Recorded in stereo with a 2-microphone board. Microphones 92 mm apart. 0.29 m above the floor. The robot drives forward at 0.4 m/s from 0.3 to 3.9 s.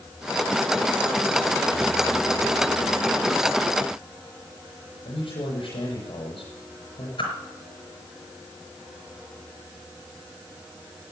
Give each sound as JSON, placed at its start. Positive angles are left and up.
{"t": 5.0, "sound": "a man speaking", "side_deg": 75, "distance_m": 8.5}
{"t": 7.2, "sound": "a whoosh", "side_deg": 75, "distance_m": 4.5}